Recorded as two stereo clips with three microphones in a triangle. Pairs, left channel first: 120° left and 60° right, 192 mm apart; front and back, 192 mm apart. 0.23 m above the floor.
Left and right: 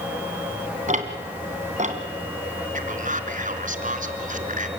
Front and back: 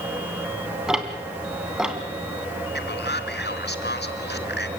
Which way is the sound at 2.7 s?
15° right.